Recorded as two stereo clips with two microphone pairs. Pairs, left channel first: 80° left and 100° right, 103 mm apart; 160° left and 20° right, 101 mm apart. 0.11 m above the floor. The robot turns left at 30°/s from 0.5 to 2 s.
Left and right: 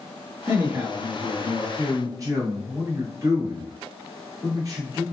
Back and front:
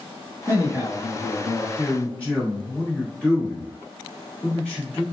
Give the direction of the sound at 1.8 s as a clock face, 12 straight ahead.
4 o'clock.